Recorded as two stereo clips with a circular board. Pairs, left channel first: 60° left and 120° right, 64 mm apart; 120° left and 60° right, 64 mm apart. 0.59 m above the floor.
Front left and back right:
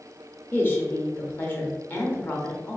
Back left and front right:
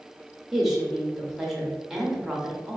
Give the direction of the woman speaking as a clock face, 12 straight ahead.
11 o'clock.